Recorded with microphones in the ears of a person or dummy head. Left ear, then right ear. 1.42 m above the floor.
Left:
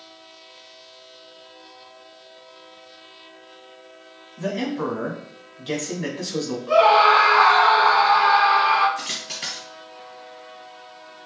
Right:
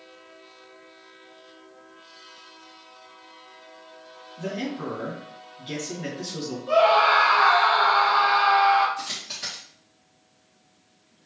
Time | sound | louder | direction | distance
4.4 | a man speaking | left 5 dB | 35° left (ahead or behind) | 1.9 m
6.7 | a scream | left 3 dB | centre (ahead or behind) | 1.7 m
9.0 | a dropped coin | left 3 dB | 20° left (ahead or behind) | 2.5 m